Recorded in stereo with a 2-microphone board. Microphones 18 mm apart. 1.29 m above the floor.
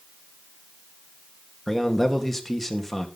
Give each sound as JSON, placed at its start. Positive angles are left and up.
{"t": 1.7, "sound": "a man speaking", "side_deg": 10, "distance_m": 2.0}